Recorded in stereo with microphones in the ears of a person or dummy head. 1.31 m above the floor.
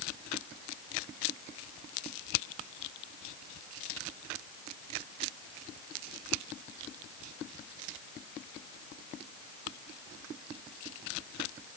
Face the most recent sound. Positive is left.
No sound to turn to.